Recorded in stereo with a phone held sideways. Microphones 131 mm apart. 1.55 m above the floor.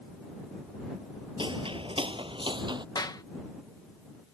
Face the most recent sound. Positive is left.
turn(degrees=30)  # may be behind; listen again after turning